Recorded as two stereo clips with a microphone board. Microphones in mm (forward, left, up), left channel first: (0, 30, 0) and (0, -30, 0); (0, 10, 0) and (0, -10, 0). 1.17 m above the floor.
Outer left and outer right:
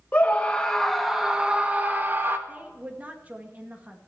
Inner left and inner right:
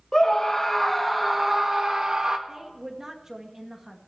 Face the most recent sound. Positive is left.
turn(degrees=-25)  # may be behind; listen again after turning